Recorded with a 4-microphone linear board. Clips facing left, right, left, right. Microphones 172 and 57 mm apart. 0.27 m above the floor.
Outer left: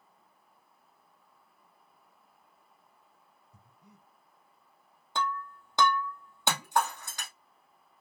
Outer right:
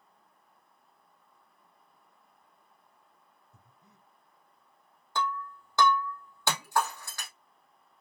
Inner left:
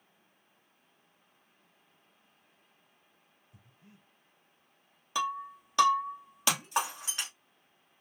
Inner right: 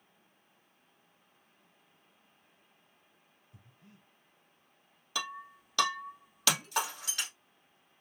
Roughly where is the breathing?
Centre.